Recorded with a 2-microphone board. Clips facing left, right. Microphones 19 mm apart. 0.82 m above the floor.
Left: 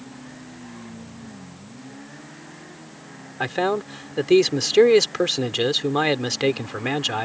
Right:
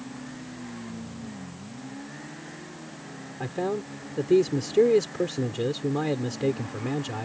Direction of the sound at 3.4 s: 75° left (ahead or behind).